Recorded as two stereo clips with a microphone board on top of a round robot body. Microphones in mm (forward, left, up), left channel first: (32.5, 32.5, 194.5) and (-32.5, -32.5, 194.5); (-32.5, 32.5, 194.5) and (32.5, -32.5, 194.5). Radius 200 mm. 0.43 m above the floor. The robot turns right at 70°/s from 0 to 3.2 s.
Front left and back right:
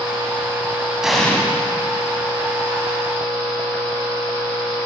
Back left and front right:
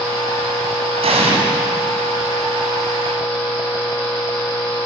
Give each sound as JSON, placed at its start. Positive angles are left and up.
{"t": 1.0, "sound": "an explosion", "azimuth_deg": -50, "distance_m": 6.0}